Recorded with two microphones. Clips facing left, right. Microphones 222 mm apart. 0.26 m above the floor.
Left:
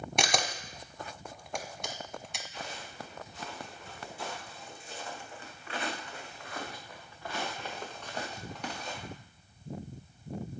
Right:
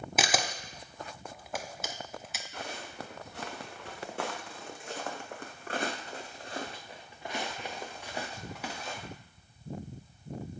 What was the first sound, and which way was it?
A camera shutter, 5° right (ahead or behind).